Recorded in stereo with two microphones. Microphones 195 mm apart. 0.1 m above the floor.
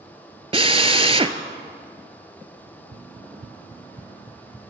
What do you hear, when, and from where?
0.5 s a drill: 30° right (ahead or behind), 0.6 m
2.7 s running footsteps: 80° right, 1.0 m; by 4.6 s 5° right (ahead or behind), 1.2 m